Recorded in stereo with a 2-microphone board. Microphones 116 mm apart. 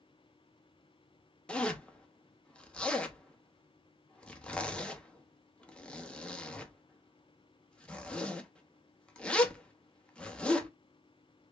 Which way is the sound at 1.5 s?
10° left (ahead or behind).